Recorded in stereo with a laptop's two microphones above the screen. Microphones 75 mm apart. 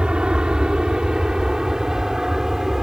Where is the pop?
No pop in this recording.